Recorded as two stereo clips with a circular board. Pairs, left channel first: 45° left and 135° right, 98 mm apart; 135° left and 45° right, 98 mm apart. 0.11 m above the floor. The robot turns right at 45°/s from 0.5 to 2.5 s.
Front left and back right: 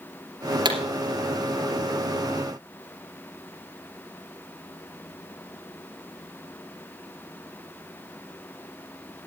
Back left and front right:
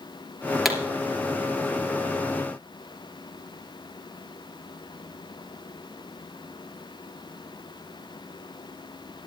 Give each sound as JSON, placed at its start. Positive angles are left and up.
{"t": 0.7, "sound": "a pop", "azimuth_deg": -135, "distance_m": 2.5}